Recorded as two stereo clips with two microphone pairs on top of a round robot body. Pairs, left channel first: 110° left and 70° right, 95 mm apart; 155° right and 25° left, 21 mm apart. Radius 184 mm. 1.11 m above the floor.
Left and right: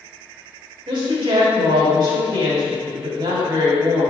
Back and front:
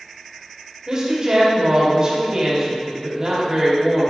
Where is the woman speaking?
45° right, 2.5 m.